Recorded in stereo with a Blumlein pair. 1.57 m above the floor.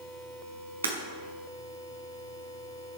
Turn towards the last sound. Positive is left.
turn(degrees=-70)